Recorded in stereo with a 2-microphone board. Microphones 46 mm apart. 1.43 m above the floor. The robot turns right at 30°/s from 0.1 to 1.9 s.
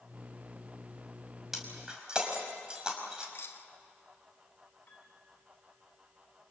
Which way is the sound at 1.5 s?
10° right (ahead or behind).